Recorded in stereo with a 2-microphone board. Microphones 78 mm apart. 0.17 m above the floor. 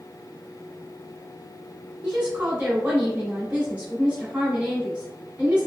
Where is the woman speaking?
20° right (ahead or behind), 1.5 m.